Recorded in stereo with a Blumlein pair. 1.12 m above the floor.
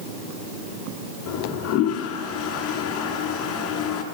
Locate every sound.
1.3 s a toilet flushing: 40° left, 3.5 m